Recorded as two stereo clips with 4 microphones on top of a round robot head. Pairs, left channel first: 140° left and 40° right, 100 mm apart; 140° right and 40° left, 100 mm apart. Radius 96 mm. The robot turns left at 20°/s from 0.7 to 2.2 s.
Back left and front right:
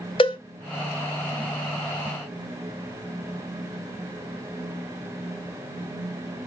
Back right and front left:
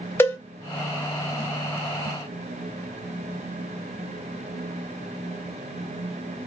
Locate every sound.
0.2 s a cowbell: 160° left, 0.5 m